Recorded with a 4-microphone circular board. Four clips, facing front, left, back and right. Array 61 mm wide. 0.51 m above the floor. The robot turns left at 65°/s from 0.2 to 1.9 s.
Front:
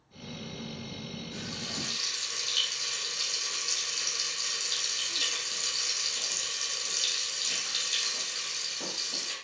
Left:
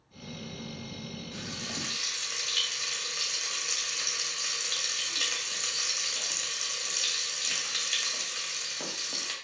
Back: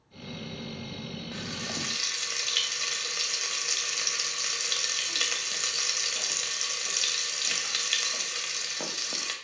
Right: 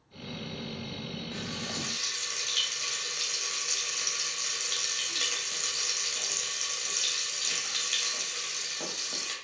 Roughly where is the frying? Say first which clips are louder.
Right 1 dB, back 3 dB; behind right.